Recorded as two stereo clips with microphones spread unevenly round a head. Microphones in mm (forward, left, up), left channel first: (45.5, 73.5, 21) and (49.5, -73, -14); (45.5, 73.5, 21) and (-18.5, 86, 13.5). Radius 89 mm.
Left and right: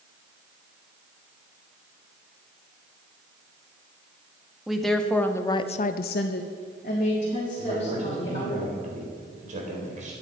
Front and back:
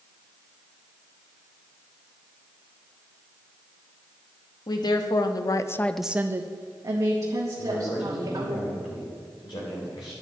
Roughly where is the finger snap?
No finger snap in this recording.